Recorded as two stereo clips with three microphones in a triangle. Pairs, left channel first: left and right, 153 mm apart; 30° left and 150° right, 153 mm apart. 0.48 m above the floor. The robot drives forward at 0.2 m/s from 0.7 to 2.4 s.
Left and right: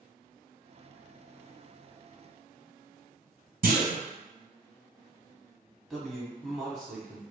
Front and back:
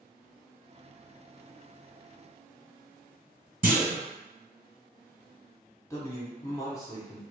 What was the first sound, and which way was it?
A clunk, 120° right.